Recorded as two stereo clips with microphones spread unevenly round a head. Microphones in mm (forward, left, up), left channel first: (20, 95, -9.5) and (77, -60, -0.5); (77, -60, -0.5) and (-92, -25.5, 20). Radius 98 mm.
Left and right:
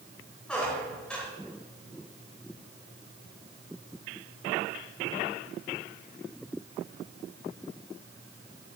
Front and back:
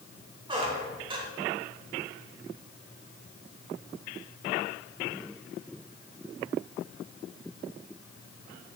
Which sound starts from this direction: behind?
A squeak, at 0.5 s.